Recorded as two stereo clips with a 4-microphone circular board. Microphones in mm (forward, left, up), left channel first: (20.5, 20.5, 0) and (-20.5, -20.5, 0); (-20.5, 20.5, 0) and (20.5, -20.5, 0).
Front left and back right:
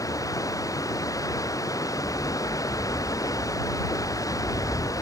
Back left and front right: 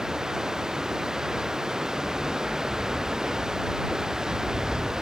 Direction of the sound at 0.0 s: 35° left.